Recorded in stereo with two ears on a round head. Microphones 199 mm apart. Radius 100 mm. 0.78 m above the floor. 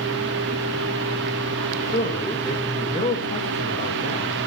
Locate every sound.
1.9 s a man speaking: 30° left (ahead or behind), 3 m